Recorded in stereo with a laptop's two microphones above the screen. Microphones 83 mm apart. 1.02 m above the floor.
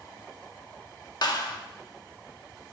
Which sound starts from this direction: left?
A clap, at 1.2 s.